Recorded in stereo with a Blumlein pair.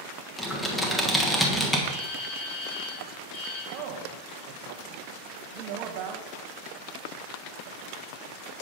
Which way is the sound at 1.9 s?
40° left.